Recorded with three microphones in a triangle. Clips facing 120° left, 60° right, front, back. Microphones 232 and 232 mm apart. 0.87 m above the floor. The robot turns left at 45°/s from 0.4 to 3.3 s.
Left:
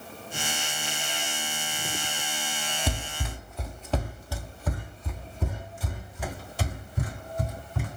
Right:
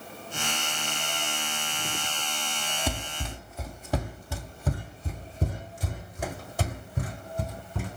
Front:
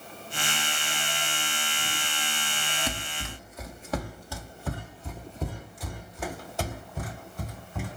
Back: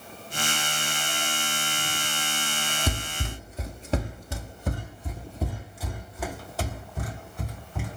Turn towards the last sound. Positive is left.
turn(degrees=-85)